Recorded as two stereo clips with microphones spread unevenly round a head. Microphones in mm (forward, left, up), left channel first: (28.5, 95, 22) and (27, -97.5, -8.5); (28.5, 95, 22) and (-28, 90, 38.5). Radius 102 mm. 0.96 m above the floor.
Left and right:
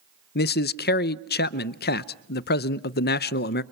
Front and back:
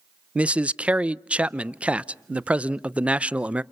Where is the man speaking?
105° left, 0.5 m.